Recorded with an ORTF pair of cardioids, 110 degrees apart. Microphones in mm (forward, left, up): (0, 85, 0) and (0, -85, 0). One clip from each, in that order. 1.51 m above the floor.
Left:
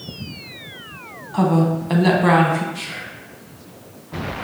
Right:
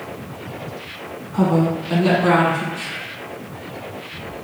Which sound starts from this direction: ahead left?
A woman speaking, at 1.3 s.